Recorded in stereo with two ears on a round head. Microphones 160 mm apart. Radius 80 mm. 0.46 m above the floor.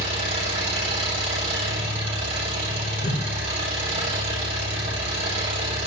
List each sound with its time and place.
0.0 s an engine running: 35° right (ahead or behind), 6 m
3.0 s a whoosh: 50° left (ahead or behind), 3.5 m